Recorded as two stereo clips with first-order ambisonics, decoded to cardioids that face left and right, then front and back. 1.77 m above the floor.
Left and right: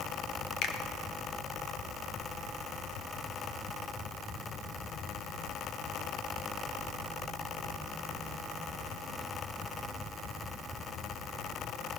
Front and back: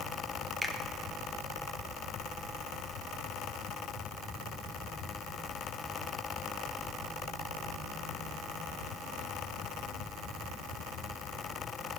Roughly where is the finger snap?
Left.